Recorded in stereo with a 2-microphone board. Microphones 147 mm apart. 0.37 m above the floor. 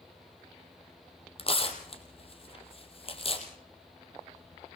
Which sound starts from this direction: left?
Tearing paper, at 1.4 s.